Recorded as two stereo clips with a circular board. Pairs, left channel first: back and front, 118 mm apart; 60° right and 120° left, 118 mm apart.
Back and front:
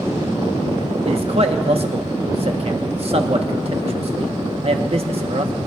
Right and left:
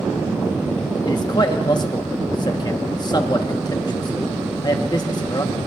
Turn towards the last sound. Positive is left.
turn(degrees=-15)